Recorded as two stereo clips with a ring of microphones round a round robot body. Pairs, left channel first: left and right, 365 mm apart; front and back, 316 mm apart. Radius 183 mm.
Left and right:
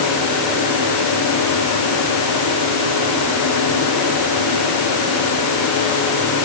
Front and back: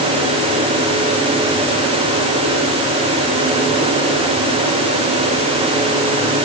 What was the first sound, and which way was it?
Only background noise.